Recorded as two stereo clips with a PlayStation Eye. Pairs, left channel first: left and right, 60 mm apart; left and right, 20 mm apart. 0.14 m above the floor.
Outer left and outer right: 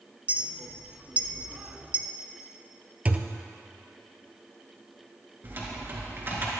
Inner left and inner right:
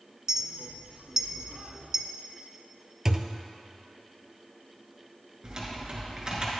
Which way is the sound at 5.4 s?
35° right (ahead or behind).